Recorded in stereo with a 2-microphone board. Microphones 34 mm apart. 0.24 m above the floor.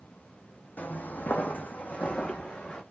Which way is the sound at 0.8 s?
60° left (ahead or behind).